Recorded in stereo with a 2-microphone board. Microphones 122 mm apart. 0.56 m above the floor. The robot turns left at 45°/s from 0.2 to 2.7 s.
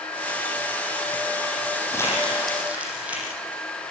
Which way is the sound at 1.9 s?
25° left (ahead or behind).